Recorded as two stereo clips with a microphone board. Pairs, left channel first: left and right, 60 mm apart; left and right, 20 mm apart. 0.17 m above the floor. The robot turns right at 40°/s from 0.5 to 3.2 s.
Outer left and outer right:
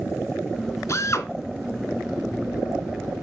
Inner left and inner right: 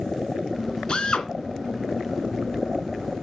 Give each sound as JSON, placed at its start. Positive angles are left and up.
{"t": 0.9, "sound": "a drill", "side_deg": 55, "distance_m": 2.0}